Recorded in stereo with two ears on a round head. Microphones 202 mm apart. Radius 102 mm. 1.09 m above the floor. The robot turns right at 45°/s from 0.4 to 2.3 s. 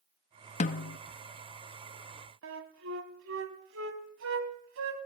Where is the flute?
60° right (ahead or behind), 1.8 m.